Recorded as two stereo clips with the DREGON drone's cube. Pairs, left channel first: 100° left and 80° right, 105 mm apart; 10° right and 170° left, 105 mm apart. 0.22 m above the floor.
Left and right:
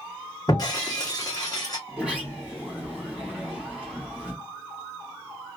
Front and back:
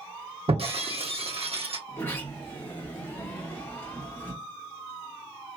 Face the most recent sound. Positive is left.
turn(degrees=-15)